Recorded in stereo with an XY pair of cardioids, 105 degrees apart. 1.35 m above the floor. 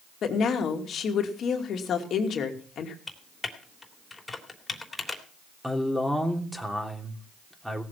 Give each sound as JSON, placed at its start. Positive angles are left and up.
{"t": 0.2, "sound": "a woman speaking", "azimuth_deg": 60, "distance_m": 2.5}
{"t": 3.1, "sound": "typing on a keyboard", "azimuth_deg": 20, "distance_m": 3.0}
{"t": 5.6, "sound": "a man speaking", "azimuth_deg": -5, "distance_m": 3.0}